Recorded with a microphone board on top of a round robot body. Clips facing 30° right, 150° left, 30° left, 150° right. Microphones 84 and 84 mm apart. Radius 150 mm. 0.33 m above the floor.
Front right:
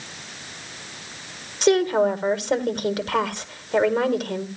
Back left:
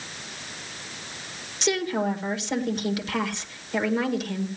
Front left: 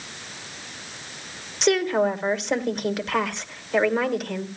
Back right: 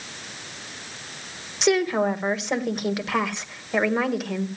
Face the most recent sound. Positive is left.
turn(degrees=-65)